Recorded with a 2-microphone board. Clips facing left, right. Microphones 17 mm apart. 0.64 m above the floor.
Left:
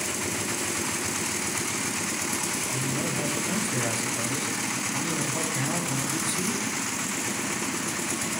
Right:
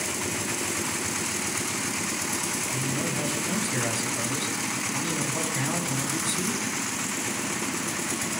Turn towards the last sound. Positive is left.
turn(degrees=-25)  # may be behind; listen again after turning